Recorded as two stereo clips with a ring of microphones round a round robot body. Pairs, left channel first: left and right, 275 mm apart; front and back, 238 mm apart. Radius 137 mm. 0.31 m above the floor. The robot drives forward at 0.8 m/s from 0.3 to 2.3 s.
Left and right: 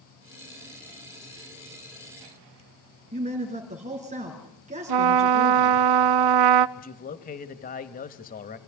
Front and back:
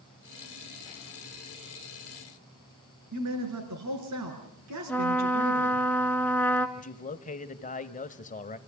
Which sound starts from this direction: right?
A trumpet, at 4.9 s.